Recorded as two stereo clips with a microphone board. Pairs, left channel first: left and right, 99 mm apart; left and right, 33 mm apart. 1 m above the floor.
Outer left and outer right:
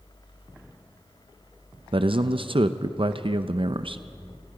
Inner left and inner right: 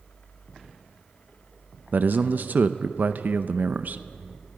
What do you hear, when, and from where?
1.9 s a man speaking: 60° right (ahead or behind), 0.7 m